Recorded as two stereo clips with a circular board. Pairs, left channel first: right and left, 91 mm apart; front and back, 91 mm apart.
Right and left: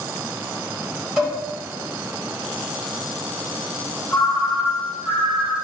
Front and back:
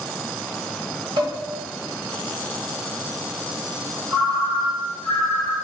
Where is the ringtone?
170° right, 1.9 m.